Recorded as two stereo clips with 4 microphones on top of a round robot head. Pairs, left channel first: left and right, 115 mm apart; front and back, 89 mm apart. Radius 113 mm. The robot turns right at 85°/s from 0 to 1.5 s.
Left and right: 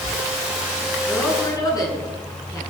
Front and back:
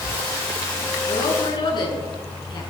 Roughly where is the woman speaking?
Ahead.